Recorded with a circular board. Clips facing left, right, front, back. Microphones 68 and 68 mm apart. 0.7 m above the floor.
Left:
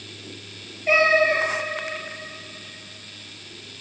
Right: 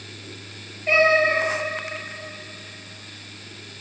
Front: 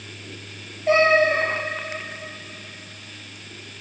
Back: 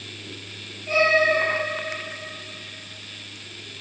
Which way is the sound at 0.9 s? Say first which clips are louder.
Even, front 3 dB; 5° left.